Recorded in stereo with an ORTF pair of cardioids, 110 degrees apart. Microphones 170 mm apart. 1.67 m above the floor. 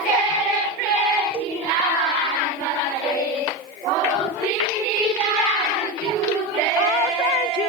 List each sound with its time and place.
1.3 s a cowbell: 30° right, 1.5 m